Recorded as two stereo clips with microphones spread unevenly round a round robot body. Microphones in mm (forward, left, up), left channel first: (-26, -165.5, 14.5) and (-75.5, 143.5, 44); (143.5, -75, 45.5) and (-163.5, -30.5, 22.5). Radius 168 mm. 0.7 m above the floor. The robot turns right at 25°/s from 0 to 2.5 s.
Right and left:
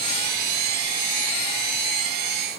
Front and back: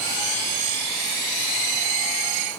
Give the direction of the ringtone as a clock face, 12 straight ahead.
I don't hear a ringtone.